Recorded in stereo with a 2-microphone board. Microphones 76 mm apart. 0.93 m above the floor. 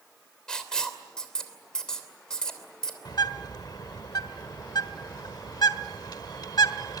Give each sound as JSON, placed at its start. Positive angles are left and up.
{"t": 0.5, "sound": "writing", "side_deg": 10, "distance_m": 3.0}
{"t": 3.0, "sound": "a bird", "side_deg": 60, "distance_m": 1.3}